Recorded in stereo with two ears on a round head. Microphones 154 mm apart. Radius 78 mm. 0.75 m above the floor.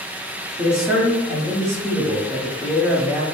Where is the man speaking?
15° right (ahead or behind), 1.5 m.